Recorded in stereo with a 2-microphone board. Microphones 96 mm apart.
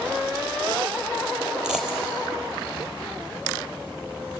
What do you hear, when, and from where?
1.6 s a dropped coin: 5° right (ahead or behind), 4 m